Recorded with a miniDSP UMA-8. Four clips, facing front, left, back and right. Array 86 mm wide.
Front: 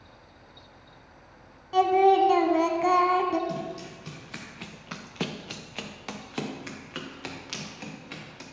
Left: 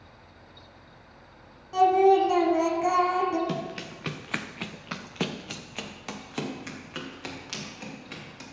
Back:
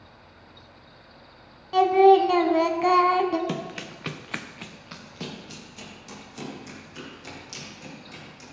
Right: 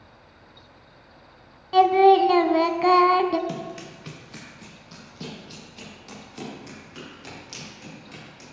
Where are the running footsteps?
170° left, 1.2 m; by 8.4 s 30° left, 4.5 m.